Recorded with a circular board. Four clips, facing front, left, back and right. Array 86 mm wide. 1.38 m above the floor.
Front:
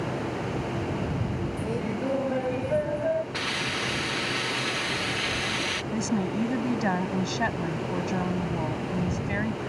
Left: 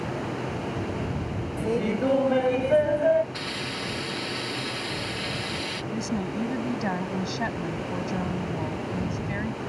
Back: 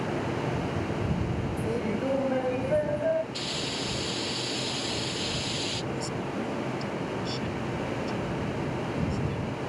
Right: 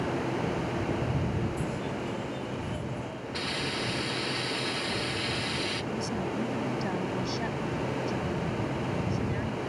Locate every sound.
1.6 s laughter: 90° left
3.3 s a hiss: straight ahead
5.9 s a woman speaking: 25° left